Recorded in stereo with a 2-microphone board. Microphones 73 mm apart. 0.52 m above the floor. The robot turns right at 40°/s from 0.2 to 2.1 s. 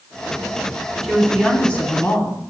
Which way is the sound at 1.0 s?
5° left.